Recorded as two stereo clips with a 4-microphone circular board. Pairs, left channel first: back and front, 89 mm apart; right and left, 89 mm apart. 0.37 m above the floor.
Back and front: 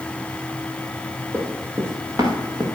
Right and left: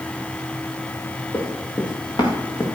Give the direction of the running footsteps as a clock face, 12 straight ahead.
2 o'clock.